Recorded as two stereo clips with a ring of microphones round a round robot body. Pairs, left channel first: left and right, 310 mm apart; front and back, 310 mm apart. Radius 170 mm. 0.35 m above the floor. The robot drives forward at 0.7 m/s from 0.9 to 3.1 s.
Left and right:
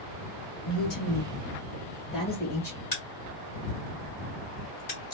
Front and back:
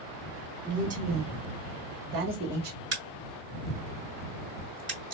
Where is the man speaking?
120° left, 1.3 m; by 2.8 s 155° left, 2 m.